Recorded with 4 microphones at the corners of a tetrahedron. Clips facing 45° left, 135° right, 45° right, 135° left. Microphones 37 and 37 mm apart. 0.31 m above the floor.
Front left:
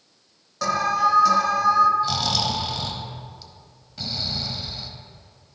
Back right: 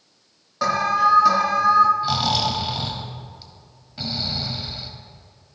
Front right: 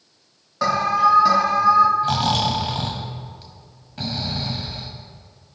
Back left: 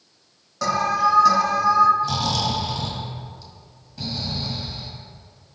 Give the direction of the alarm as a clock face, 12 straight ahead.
3 o'clock.